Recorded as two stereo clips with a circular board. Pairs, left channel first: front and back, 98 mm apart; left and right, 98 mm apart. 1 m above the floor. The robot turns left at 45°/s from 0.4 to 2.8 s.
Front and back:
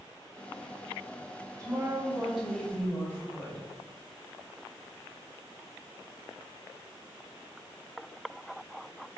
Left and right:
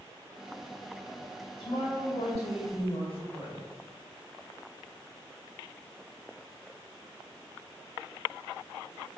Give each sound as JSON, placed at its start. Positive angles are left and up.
{"t": 1.6, "sound": "a woman speaking", "azimuth_deg": 125, "distance_m": 5.0}